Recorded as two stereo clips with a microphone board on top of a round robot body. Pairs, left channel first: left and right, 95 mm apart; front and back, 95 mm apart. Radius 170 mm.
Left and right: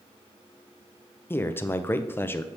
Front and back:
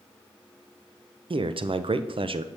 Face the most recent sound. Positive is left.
turn(degrees=155)